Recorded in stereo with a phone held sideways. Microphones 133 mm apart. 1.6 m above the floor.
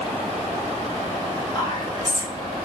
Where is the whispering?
40° left (ahead or behind), 2.0 m.